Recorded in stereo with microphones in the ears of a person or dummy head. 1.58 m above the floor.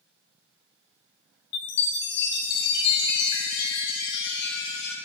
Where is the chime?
65° left (ahead or behind), 0.6 m.